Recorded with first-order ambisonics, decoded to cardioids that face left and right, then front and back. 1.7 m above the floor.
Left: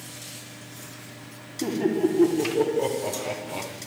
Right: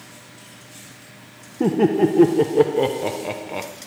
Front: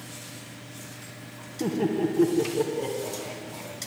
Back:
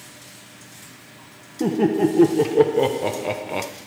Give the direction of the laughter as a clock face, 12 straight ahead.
4 o'clock.